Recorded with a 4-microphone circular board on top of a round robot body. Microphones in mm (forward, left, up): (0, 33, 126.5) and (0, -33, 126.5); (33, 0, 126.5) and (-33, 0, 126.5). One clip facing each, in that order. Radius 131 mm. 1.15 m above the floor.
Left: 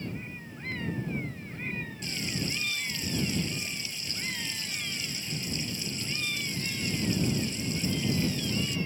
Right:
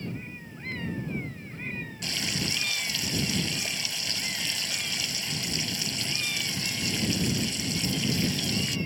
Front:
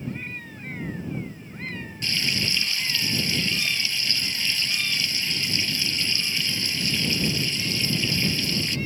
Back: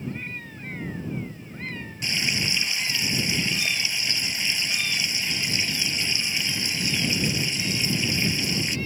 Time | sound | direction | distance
2.0 | frying | 105° right | ?